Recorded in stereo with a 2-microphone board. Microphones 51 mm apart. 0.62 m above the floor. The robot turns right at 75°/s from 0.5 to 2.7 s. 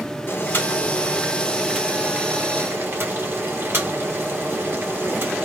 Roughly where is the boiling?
Left.